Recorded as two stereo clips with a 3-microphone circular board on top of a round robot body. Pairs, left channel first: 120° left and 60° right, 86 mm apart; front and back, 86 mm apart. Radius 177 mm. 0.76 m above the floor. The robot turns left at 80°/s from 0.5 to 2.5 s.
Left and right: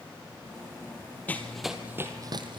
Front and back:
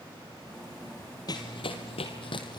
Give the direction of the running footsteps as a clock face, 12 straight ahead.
10 o'clock.